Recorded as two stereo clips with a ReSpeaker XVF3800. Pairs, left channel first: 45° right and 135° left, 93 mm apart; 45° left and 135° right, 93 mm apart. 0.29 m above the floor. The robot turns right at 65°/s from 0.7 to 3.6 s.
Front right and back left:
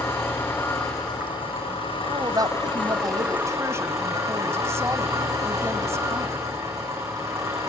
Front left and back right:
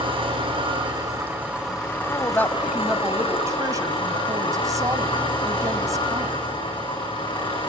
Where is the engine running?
110° right, 10 m; by 7.7 s 75° left, 10 m.